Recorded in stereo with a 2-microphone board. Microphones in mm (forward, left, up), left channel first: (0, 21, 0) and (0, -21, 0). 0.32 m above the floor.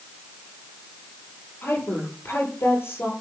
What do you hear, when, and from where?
1.6 s a woman speaking: 80° left, 9 m